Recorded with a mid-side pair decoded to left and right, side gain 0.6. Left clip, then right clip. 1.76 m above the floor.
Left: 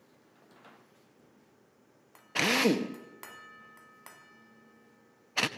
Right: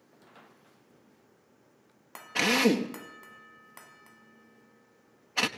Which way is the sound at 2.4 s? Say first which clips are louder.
Right 2 dB; 5° left.